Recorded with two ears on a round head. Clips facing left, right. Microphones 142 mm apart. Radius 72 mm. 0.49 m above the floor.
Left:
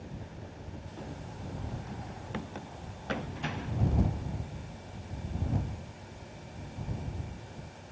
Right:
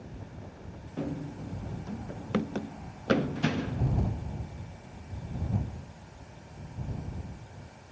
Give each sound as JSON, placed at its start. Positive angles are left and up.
{"t": 1.0, "sound": "running footsteps", "side_deg": -65}